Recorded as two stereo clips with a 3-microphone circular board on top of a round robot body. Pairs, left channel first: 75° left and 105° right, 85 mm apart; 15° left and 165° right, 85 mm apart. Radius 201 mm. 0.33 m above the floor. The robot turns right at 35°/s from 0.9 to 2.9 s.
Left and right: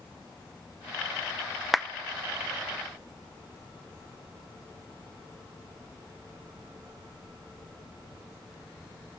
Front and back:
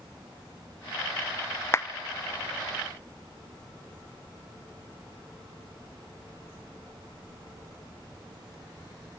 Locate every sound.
1.7 s a clap: 15° right, 0.8 m